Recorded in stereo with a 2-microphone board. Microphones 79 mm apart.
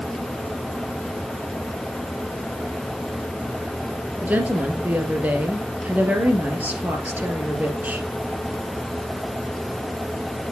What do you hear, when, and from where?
4.2 s a woman speaking: 20° right (ahead or behind), 2.5 m